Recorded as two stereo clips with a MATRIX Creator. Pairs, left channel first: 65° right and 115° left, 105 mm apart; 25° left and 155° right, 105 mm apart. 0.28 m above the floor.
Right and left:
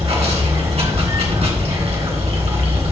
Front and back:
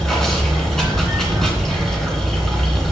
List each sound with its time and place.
0.0 s running water: 110° left, 2.5 m